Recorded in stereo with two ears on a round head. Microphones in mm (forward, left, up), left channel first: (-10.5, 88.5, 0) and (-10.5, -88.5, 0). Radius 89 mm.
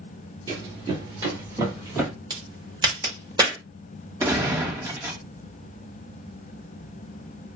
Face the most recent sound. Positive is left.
turn(degrees=-15)  # may be behind; listen again after turning